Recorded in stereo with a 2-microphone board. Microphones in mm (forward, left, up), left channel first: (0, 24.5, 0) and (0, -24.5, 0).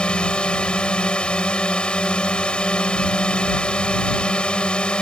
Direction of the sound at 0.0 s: 20° left (ahead or behind).